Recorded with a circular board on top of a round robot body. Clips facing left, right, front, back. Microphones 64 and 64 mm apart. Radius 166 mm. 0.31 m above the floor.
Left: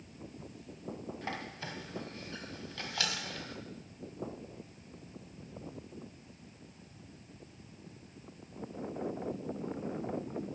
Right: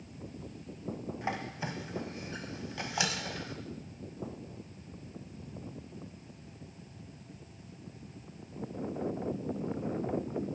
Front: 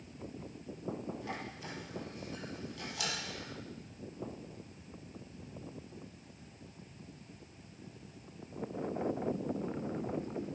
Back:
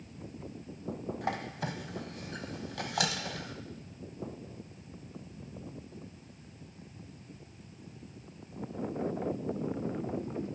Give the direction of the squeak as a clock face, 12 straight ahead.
5 o'clock.